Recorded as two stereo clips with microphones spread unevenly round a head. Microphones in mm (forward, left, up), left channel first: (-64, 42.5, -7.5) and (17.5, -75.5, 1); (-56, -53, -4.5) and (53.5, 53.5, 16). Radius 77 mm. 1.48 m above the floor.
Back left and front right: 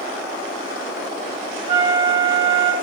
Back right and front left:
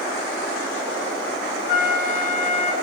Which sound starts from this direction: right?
A flute, at 1.7 s.